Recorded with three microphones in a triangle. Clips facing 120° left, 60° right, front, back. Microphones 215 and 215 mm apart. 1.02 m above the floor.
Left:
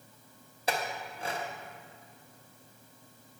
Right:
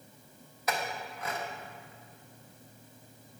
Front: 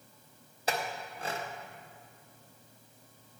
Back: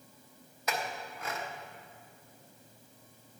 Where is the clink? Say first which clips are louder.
Left 1 dB, front 2 dB; 60° left, 0.9 m.